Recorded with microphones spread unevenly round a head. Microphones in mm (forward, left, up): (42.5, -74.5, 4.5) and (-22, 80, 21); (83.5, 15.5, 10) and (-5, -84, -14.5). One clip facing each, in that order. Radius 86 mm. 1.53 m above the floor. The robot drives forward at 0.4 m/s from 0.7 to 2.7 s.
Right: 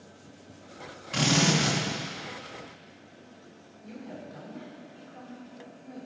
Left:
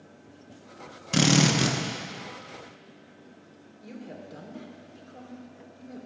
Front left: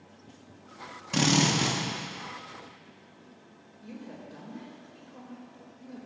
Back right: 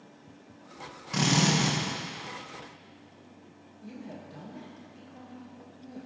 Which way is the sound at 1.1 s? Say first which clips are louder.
Left 3 dB, front left 1 dB; 105° left.